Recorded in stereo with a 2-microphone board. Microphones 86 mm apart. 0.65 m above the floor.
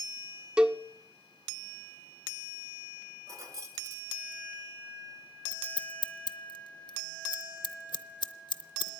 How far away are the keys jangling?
About 1.5 m.